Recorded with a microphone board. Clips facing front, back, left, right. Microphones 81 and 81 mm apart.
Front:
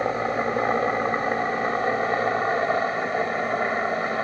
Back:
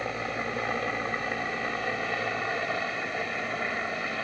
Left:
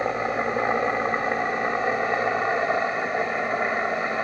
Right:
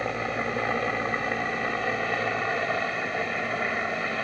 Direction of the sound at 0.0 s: 35° left.